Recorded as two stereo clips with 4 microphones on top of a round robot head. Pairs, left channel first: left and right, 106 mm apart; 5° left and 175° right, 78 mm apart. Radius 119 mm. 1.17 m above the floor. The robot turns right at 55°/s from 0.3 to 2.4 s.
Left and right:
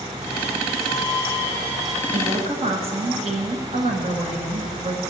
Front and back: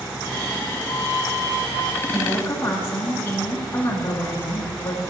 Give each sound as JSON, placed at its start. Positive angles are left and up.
{"t": 2.1, "sound": "a woman speaking", "azimuth_deg": -80, "distance_m": 1.2}